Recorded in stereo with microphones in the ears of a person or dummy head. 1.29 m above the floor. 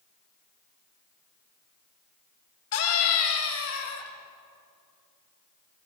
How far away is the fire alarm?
I don't hear a fire alarm.